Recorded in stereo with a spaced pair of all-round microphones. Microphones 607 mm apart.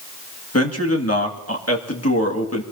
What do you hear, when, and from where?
0.5 s a man speaking: 25° left (ahead or behind), 2 m